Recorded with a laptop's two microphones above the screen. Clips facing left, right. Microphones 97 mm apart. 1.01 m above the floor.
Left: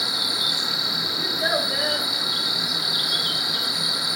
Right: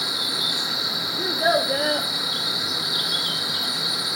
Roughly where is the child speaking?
Right.